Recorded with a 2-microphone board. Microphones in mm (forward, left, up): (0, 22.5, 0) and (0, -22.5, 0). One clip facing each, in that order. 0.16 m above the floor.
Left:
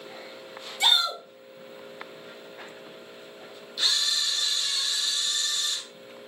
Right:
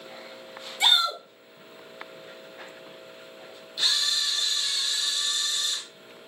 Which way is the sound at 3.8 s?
Centre (ahead or behind).